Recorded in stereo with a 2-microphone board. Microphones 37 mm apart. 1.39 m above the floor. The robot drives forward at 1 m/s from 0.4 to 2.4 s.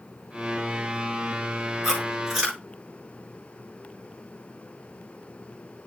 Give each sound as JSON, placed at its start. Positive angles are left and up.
{"t": 1.8, "sound": "chewing", "side_deg": -10, "distance_m": 7.0}